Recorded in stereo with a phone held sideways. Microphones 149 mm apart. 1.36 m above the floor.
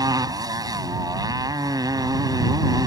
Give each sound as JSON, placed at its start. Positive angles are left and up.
{"t": 0.0, "sound": "a motorcycle", "side_deg": -25}